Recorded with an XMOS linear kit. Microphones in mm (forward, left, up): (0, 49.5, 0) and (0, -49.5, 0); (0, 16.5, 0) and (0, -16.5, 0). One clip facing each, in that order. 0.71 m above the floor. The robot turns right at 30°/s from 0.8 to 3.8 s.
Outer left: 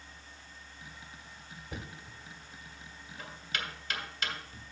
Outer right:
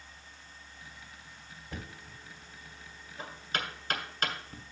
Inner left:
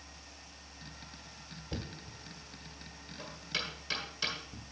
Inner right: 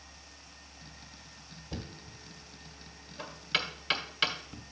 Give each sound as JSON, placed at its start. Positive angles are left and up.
{"t": 1.7, "sound": "knocking", "side_deg": 15, "distance_m": 1.6}